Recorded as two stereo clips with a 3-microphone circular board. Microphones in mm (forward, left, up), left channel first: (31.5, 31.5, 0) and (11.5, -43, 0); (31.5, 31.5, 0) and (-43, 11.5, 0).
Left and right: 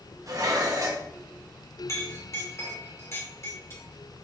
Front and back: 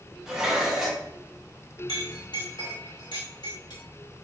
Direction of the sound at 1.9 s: 20° left.